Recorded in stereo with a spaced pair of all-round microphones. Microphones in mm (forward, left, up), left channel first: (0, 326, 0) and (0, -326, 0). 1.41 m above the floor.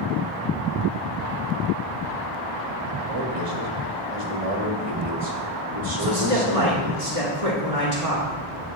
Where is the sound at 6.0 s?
60° right (ahead or behind), 4.5 m.